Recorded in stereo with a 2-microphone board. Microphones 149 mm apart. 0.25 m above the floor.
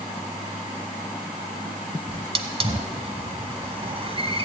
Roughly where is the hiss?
Right.